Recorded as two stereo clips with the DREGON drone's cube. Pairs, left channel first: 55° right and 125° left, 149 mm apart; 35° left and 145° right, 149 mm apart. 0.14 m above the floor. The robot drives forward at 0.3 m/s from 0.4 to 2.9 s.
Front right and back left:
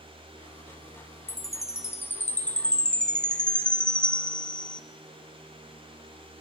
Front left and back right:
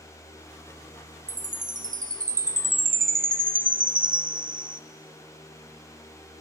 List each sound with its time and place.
1.3 s a chime: 120° right, 1.1 m; by 4.8 s 140° right, 1.4 m